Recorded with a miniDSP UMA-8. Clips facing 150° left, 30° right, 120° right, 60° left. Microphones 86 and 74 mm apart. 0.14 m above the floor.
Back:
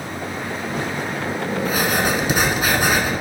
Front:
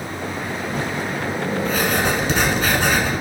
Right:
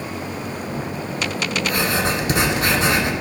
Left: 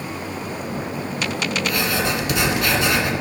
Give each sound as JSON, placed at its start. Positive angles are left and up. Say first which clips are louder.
{"t": 1.6, "sound": "writing", "louder": "back 1 dB, right 2 dB", "azimuth_deg": -140, "distance_m": 1.5}